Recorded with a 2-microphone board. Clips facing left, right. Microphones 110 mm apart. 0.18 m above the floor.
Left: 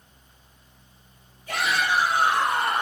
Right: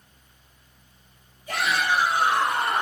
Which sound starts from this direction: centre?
A shout, at 1.5 s.